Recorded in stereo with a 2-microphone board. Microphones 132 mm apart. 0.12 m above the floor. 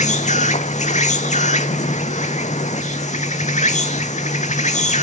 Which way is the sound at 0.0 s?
60° left (ahead or behind).